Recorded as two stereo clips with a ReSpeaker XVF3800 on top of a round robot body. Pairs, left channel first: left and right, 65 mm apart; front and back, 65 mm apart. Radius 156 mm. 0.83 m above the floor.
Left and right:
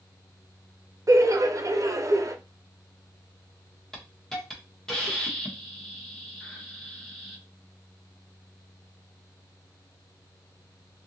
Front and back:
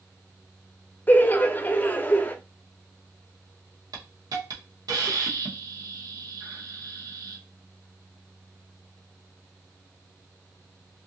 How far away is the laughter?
About 0.7 m.